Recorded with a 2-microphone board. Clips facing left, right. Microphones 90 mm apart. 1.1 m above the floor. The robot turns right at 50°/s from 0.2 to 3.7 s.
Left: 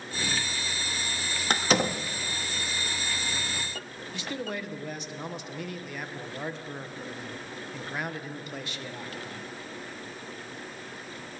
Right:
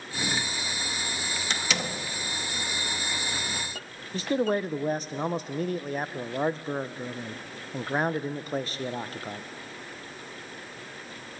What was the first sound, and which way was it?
A door slam, 50° left (ahead or behind).